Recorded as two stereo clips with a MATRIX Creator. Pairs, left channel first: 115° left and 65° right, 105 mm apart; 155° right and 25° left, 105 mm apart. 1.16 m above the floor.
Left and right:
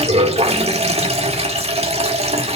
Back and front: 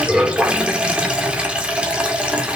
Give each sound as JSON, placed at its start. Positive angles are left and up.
{"t": 0.0, "sound": "running water", "azimuth_deg": -55, "distance_m": 2.0}